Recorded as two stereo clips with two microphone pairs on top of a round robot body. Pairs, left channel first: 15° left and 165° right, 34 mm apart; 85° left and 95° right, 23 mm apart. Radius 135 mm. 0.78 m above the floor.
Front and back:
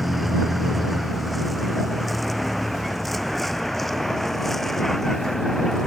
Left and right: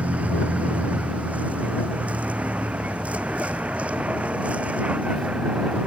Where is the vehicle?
75° right; by 5.9 s 60° right.